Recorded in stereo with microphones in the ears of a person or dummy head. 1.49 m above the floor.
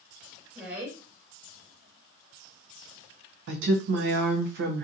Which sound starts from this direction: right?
A woman speaking, at 3.5 s.